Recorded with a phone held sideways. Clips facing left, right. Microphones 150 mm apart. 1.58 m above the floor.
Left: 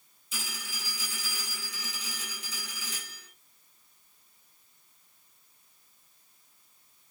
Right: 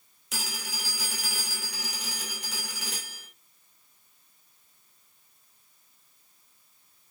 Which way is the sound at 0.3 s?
75° right (ahead or behind).